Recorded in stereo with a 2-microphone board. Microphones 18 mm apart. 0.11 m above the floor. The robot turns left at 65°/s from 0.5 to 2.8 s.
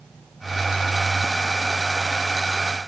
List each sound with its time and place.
Only background noise.